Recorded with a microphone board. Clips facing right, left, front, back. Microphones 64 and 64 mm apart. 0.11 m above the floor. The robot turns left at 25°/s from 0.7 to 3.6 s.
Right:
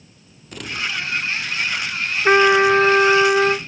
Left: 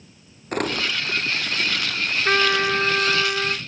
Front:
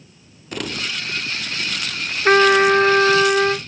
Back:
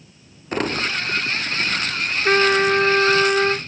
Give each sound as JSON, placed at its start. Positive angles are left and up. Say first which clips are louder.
{"t": 0.5, "sound": "crumpling", "louder": "left 3 dB, back 5 dB", "azimuth_deg": 125}
{"t": 2.2, "sound": "a trumpet", "louder": "right 8 dB, front 4 dB", "azimuth_deg": -45}